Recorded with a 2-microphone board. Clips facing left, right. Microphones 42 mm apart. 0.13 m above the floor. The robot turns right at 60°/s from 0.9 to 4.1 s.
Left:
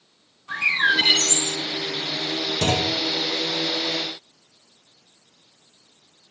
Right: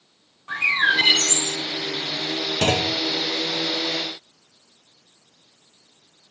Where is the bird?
145° right, 4.5 m; by 1.6 s 105° right, 4.5 m.